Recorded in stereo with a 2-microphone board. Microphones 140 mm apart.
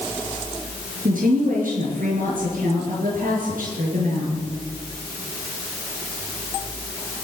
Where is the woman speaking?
80° right, 6 m.